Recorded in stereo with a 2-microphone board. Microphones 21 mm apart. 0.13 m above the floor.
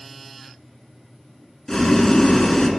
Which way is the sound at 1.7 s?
30° left (ahead or behind).